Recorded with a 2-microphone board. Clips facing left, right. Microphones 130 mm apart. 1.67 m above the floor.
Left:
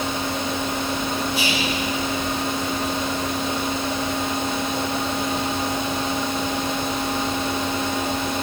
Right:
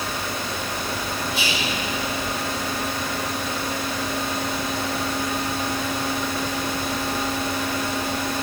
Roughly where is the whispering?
Right.